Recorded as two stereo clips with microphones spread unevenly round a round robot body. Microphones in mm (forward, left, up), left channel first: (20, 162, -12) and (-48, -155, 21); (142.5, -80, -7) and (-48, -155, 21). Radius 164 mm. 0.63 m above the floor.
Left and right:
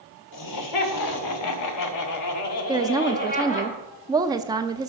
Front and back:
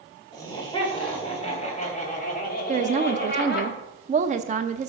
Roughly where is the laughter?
Left.